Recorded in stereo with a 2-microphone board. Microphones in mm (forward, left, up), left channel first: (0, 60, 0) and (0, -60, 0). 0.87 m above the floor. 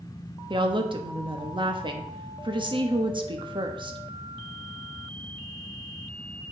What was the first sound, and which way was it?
A woman speaking, 45° right (ahead or behind).